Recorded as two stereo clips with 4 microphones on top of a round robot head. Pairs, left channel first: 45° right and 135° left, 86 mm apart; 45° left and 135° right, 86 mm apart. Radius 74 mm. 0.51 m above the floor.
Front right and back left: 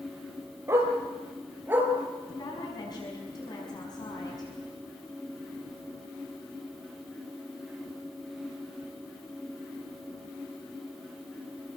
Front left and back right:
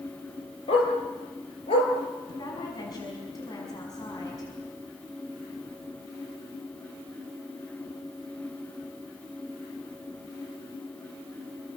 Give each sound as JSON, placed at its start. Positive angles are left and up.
{"t": 0.7, "sound": "a dog barking", "azimuth_deg": 75, "distance_m": 5.5}
{"t": 2.3, "sound": "a woman speaking", "azimuth_deg": 0, "distance_m": 5.5}